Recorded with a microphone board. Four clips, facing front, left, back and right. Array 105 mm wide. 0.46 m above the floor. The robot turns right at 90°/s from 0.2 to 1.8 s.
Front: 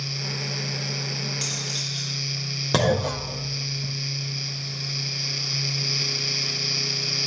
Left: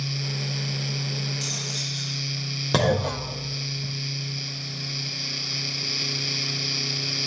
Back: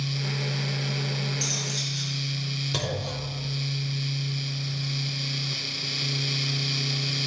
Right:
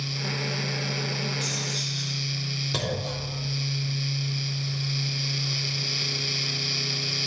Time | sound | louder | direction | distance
1.4 | cutlery clinking | right 2 dB, back 1 dB | 30° right | 7 m
2.7 | a clunk | left 10 dB, front 12 dB | 40° left | 0.7 m